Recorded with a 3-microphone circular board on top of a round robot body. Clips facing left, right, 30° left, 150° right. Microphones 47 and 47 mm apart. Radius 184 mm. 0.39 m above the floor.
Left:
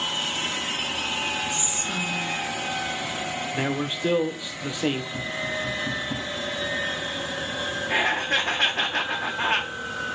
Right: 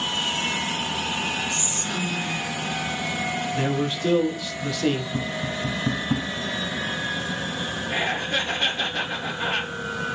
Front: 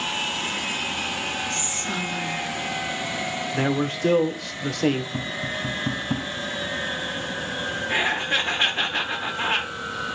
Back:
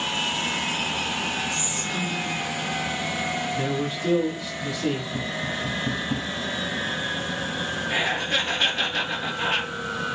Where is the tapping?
30° right, 3.5 m.